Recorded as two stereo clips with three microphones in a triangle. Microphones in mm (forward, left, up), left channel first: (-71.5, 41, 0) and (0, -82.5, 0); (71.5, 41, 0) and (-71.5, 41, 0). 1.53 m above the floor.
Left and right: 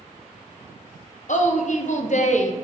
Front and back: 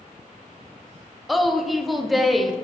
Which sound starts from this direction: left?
A woman speaking, at 1.3 s.